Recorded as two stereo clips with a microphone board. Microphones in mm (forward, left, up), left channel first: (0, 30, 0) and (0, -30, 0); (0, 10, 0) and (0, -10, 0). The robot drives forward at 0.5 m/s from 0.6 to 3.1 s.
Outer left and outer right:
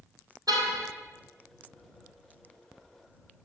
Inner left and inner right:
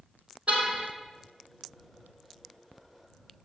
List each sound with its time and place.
0.5 s a car horn: 80° right, 3.5 m